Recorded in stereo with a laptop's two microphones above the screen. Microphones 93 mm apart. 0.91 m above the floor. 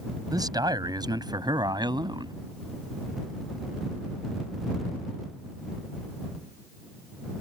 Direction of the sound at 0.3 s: 45° right (ahead or behind).